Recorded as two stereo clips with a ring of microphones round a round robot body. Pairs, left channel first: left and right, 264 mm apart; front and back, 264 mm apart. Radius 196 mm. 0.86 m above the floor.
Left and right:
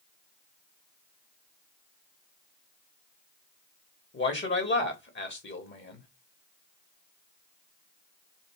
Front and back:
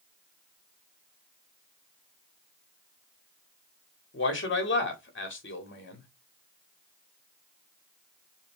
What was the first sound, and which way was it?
A man speaking, 45° left.